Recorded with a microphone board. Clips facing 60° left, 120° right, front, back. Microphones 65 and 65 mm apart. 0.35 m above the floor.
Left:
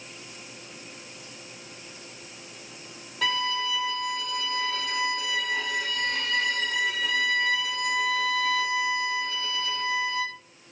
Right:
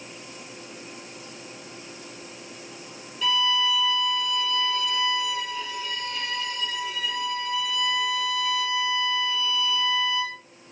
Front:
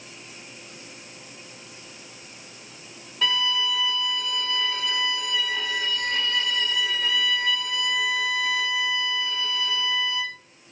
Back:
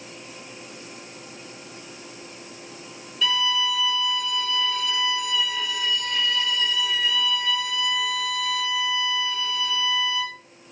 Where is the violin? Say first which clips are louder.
Right 3 dB, back 1 dB; 45° left, 0.7 m.